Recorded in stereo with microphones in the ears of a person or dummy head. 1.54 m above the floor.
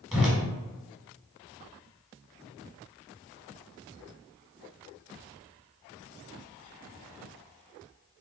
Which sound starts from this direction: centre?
A whoosh, at 0.1 s.